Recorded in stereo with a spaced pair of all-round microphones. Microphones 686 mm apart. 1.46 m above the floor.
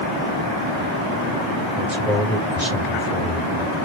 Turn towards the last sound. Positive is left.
turn(degrees=-75)  # may be behind; listen again after turning